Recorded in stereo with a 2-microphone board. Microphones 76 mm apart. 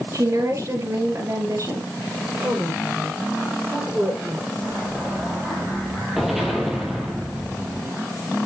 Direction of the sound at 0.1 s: 45° right (ahead or behind).